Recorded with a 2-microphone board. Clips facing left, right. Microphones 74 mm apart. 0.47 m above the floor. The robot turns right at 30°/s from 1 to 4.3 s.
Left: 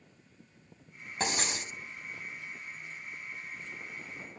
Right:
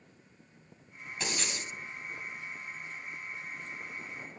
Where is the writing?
40° left (ahead or behind), 4 m; by 1.7 s 55° left (ahead or behind), 4 m.